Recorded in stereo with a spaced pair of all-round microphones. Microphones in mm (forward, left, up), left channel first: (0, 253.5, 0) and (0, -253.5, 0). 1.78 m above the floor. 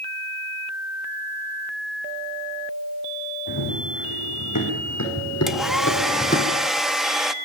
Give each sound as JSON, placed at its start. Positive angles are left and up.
{"t": 3.5, "sound": "running footsteps", "side_deg": 45, "distance_m": 7.0}
{"t": 5.5, "sound": "a hair dryer", "side_deg": 0, "distance_m": 1.2}